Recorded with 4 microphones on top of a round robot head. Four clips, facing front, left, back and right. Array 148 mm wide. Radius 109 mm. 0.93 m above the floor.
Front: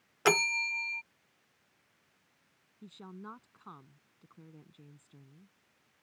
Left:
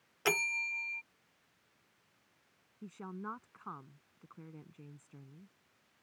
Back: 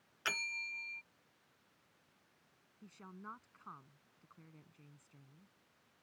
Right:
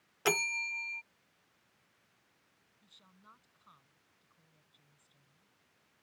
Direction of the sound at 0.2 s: 5° right.